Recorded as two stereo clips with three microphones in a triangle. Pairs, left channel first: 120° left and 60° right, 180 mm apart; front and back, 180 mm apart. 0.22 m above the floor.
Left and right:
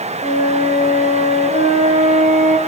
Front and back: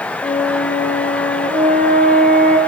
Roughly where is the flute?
Left.